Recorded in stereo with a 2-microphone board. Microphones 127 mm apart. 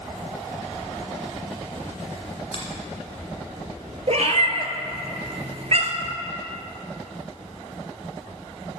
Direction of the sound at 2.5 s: 45° left (ahead or behind).